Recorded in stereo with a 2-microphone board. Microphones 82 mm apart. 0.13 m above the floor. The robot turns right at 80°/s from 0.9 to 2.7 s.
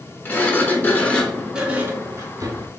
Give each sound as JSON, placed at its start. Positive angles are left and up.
{"t": 0.2, "sound": "a sliding door", "azimuth_deg": 140, "distance_m": 0.6}